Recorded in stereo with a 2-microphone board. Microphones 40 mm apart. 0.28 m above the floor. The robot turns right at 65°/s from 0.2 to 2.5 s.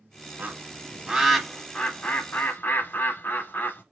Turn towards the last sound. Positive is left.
turn(degrees=60)  # may be behind; listen again after turning